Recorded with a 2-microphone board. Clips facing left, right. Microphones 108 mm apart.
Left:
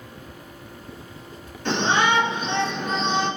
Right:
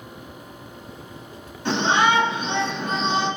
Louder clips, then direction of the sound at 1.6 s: Right 1 dB; 10° right (ahead or behind).